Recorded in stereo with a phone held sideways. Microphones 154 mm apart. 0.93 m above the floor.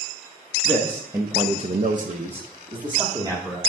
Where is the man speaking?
5° right (ahead or behind), 1.3 m; by 3.6 s 25° right (ahead or behind), 2.5 m.